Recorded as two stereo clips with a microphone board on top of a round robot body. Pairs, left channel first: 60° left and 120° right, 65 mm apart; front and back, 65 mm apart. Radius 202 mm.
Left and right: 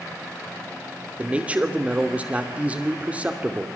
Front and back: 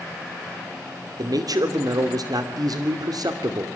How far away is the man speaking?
About 2.5 m.